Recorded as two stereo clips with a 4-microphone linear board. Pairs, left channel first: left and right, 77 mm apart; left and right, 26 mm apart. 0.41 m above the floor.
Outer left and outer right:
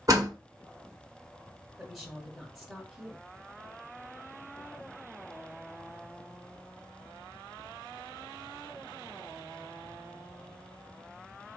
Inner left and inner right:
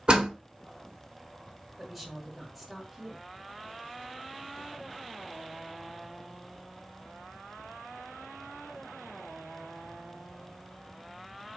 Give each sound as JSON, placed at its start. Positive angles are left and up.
{"t": 0.1, "sound": "a door slam", "side_deg": -45, "distance_m": 1.0}
{"t": 1.8, "sound": "a woman speaking", "side_deg": 0, "distance_m": 1.1}